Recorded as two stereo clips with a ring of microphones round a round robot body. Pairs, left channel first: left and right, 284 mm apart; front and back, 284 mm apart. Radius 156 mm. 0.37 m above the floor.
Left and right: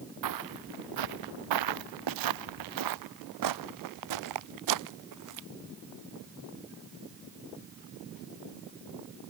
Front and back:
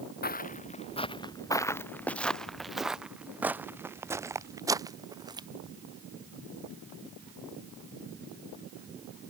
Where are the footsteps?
60° right; by 5.5 s 105° right.